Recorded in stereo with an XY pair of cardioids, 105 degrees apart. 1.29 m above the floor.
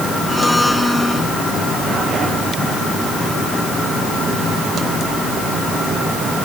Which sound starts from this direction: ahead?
A blender, at 0.3 s.